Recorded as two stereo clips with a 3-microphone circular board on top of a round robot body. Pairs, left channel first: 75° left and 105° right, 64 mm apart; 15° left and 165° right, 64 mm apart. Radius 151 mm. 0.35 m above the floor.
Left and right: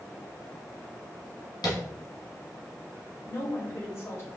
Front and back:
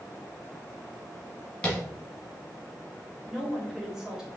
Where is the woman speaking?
115° left, 2.5 m.